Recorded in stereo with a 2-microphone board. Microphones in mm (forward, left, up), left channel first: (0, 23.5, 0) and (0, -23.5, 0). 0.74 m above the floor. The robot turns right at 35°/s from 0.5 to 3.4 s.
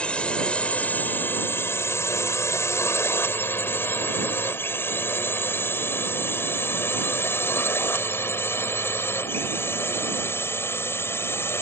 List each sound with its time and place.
0.0 s a drone: 20° left (ahead or behind); by 11.6 s 55° left (ahead or behind)